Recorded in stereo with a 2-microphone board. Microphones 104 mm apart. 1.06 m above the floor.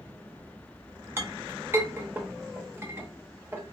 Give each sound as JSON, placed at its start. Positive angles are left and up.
{"t": 1.2, "sound": "a clink", "side_deg": -25, "distance_m": 0.8}